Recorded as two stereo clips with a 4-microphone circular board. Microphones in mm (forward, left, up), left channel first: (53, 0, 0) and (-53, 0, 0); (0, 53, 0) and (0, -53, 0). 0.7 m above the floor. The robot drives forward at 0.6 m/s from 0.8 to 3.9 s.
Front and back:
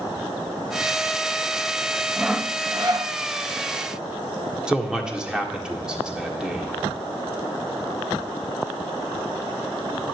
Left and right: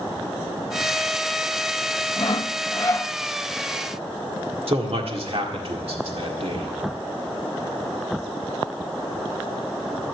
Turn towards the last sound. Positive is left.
turn(degrees=-100)